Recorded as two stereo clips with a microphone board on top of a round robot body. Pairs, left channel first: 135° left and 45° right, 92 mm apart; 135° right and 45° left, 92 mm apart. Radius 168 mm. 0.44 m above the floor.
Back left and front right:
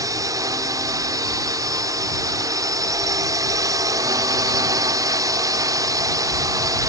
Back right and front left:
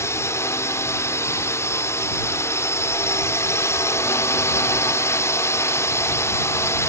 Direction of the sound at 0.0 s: 85° right.